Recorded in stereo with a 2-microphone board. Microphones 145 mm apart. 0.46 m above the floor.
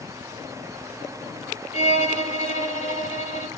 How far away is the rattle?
No rattle in this recording.